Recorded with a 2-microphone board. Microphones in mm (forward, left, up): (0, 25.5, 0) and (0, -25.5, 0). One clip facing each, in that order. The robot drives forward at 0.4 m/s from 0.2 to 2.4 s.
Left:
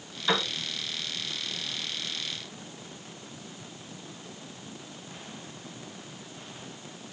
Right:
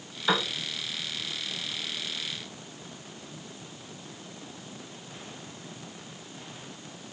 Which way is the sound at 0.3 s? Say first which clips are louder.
Right 1 dB; 15° right (ahead or behind).